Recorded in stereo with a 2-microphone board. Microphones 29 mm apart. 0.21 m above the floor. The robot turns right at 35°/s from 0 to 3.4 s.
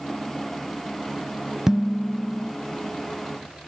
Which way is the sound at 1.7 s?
20° right (ahead or behind).